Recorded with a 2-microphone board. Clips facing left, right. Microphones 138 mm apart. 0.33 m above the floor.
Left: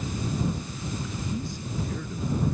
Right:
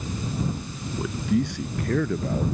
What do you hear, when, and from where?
1.0 s a man speaking: 75° right (ahead or behind); by 2.5 s 80° right